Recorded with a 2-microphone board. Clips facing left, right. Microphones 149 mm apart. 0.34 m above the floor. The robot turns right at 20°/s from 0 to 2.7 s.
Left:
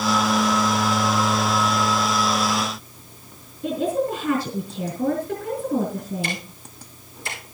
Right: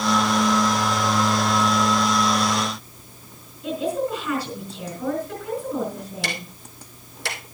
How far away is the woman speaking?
About 3.5 m.